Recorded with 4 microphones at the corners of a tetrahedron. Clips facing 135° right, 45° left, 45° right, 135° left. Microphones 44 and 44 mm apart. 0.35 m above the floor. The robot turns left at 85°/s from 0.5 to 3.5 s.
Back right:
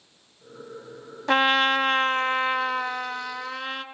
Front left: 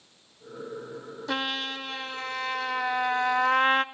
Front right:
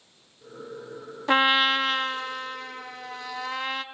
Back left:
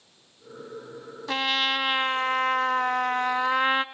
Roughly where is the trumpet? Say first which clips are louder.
Back right 11 dB, front right 5 dB; right.